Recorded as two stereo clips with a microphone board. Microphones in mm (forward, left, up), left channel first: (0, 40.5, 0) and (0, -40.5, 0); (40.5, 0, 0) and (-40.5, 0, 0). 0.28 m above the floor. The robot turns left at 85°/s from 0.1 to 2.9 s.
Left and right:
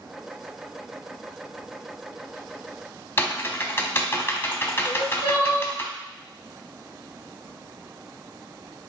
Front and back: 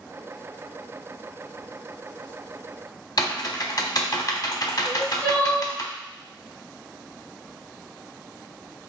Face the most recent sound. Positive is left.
turn(degrees=-45)